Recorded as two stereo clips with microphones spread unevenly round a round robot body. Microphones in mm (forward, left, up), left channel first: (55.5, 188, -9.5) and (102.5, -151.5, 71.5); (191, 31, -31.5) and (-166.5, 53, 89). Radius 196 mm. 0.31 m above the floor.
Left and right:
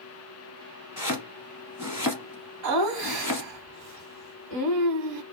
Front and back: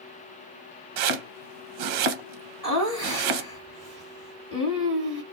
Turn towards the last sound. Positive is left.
turn(degrees=-70)